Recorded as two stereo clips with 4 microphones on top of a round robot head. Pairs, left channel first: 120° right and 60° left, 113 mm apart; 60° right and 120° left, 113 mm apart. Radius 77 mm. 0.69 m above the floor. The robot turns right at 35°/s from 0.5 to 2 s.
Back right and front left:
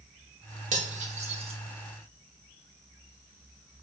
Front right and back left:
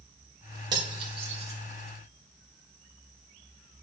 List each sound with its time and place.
0.7 s cutlery clinking: 65° left, 1.9 m; by 1.6 s 95° left, 1.9 m